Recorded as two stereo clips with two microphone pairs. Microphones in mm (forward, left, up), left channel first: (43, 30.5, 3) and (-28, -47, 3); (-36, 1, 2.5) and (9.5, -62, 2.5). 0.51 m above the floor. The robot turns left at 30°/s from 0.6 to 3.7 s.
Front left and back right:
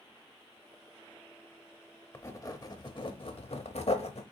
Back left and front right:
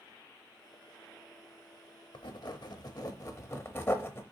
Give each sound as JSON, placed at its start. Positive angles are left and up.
{"t": 2.1, "sound": "writing", "azimuth_deg": 115, "distance_m": 0.6}